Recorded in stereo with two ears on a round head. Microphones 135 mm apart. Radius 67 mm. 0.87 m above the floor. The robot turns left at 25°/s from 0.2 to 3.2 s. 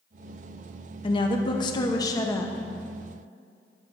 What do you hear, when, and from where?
1.0 s a woman speaking: 70° left, 0.9 m; by 2.5 s 30° left, 0.9 m